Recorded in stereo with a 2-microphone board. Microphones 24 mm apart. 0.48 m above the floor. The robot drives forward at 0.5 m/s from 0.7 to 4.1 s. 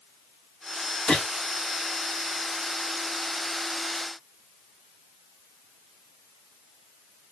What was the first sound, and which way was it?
A gunshot, 25° left (ahead or behind).